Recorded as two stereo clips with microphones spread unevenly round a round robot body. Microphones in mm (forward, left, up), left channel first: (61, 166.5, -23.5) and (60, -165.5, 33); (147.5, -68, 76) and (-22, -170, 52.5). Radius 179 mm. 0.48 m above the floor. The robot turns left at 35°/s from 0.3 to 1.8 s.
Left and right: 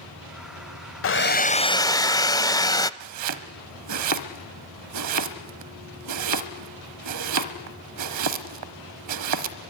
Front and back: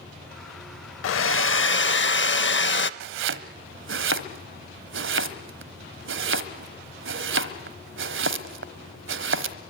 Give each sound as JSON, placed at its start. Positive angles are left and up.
{"t": 1.0, "sound": "a hair dryer", "azimuth_deg": 35, "distance_m": 0.6}
{"t": 3.0, "sound": "chopping", "azimuth_deg": -135, "distance_m": 1.1}